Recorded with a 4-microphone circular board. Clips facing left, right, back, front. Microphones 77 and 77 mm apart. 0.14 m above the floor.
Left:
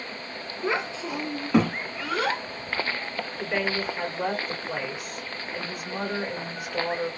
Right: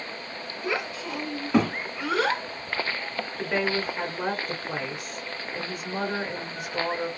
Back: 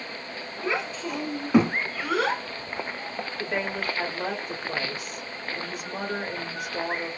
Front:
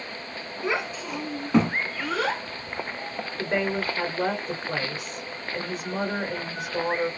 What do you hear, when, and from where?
0.6 s a child speaking: 75° left, 0.9 m; by 2.4 s 120° right, 0.9 m
3.4 s a woman speaking: 35° right, 1.9 m